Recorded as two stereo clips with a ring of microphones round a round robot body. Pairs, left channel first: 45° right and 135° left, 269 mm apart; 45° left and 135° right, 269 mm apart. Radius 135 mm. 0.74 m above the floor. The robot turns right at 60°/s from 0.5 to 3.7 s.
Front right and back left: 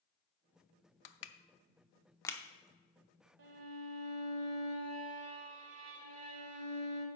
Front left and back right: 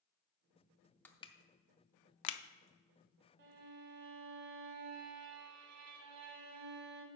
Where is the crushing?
40° right, 0.6 m; by 2.4 s 40° left, 0.6 m.